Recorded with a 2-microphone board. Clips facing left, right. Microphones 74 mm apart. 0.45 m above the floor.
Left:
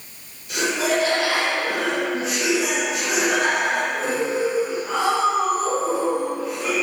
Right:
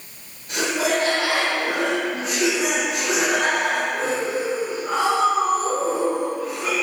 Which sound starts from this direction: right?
Laughter, at 0.5 s.